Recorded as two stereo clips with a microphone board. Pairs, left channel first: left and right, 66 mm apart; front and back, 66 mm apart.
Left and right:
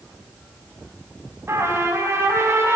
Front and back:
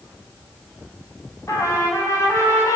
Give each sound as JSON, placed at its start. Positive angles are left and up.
{"t": 1.5, "sound": "a trumpet", "azimuth_deg": -40, "distance_m": 5.0}